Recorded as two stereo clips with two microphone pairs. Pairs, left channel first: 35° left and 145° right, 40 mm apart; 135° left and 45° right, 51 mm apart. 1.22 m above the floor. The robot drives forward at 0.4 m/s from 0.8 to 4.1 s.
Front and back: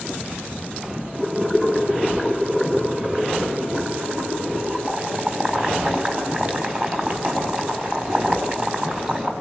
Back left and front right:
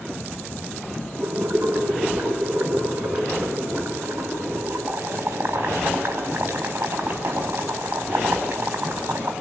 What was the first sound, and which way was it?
Boiling, 80° right.